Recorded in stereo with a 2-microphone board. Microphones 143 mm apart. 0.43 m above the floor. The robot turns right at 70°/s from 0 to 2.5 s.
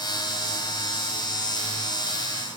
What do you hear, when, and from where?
Only background noise.